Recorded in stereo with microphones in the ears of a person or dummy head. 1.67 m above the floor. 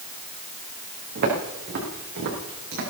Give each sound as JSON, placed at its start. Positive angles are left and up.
{"t": 1.1, "sound": "footsteps", "side_deg": -55, "distance_m": 7.0}